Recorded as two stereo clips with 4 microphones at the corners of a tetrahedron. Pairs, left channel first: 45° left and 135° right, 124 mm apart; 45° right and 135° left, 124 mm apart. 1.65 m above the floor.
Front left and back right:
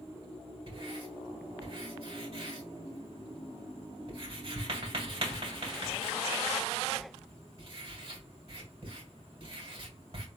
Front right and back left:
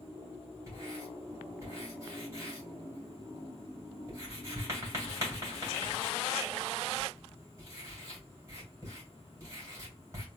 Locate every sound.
0.7 s writing: 165° right, 2.5 m